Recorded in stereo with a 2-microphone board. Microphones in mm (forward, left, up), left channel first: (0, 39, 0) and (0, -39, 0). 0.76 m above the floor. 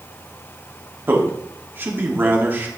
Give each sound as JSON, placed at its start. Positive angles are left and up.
{"t": 1.1, "sound": "a man speaking", "side_deg": -25, "distance_m": 1.4}